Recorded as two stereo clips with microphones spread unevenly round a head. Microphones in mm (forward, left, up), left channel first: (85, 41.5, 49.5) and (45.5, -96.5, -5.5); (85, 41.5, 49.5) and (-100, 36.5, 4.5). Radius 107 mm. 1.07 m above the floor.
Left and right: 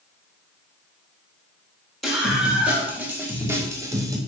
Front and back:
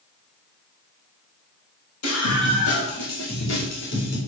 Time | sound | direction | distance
2.0 | a scream | 15° right | 6 m